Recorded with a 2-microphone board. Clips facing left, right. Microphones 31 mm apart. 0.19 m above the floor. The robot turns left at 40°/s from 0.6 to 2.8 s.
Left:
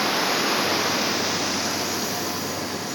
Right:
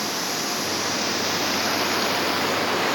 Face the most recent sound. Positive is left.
turn(degrees=-70)